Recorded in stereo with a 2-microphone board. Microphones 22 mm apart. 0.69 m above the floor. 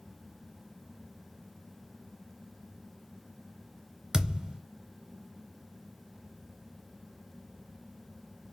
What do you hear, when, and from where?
4.1 s a thud: 25° right (ahead or behind), 0.7 m